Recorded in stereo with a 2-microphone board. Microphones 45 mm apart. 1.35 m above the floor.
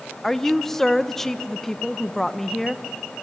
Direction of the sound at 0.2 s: 15° left (ahead or behind).